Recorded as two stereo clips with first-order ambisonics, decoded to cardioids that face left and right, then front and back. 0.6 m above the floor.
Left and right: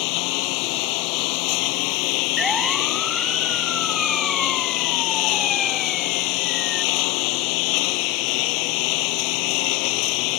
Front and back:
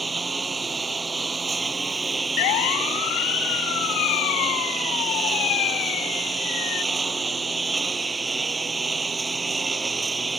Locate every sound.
0.0 s a lawn mower: 105° left
2.4 s a siren: 5° left; by 6.8 s 25° left